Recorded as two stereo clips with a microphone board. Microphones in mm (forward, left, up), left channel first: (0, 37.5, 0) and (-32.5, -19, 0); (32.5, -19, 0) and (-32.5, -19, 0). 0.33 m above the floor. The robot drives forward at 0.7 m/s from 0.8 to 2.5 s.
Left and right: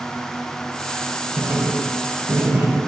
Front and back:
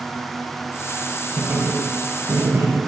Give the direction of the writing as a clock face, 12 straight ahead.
4 o'clock.